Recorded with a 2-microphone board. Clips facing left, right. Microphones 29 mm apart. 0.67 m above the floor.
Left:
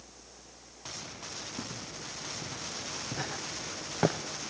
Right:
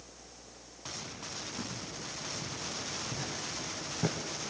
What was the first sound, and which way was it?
Footsteps, 50° left (ahead or behind).